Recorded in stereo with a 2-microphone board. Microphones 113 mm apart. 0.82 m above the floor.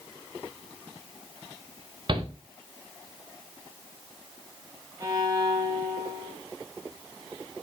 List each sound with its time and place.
2.1 s a shout: 45° right (ahead or behind), 2.5 m
5.0 s a violin: 30° right (ahead or behind), 2.5 m